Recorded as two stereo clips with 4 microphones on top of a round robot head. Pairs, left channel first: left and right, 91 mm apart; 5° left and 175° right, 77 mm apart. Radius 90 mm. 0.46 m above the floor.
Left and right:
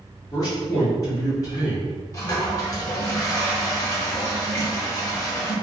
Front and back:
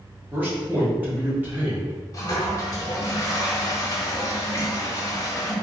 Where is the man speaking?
125° left, 1.1 m.